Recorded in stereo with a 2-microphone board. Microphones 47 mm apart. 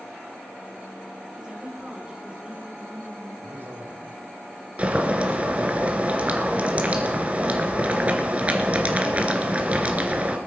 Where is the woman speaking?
20° right (ahead or behind), 6.5 m.